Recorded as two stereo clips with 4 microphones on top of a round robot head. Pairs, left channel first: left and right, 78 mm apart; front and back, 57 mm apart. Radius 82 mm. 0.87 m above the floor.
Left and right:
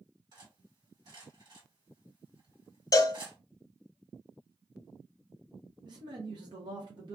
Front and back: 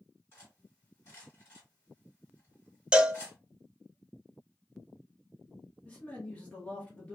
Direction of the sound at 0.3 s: 50° right.